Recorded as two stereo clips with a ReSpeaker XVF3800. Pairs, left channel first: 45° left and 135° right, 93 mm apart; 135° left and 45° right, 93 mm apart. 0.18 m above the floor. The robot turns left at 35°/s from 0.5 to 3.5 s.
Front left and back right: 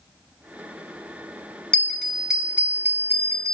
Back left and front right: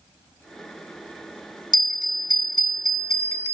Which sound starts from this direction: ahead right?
A bell, at 1.7 s.